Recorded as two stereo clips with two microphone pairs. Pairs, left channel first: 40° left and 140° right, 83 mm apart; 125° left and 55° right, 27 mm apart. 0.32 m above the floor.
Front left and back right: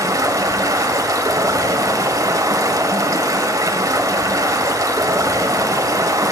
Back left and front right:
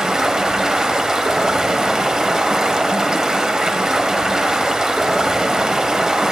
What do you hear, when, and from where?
0.0 s running water: 110° right, 1.0 m